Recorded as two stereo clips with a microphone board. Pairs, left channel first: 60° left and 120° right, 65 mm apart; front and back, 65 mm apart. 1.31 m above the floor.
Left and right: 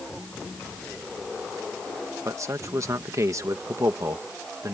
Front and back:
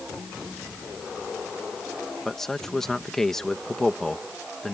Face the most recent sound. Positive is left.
turn(degrees=-80)